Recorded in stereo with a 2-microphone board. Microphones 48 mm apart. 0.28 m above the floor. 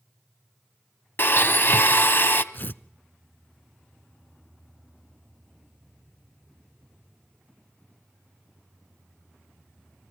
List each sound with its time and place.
1.2 s a blender: 50° left (ahead or behind), 1.0 m
2.5 s tearing paper: 45° left (ahead or behind), 0.5 m